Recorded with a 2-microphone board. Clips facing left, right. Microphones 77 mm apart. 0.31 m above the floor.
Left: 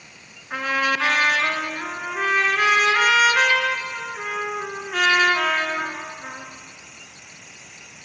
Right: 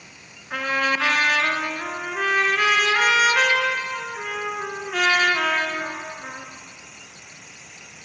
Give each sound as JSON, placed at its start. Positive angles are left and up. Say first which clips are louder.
{"t": 0.5, "sound": "a trumpet", "louder": "even", "side_deg": 10, "distance_m": 4.0}